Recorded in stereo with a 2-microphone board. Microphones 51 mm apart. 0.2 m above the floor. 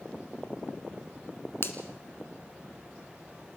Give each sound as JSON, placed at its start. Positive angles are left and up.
{"t": 1.6, "sound": "a finger snap", "side_deg": 50, "distance_m": 1.6}